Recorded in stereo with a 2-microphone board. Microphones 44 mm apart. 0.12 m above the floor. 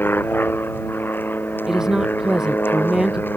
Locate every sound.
0.0 s an aircraft: 50° left (ahead or behind)
1.7 s a woman speaking: 15° right (ahead or behind)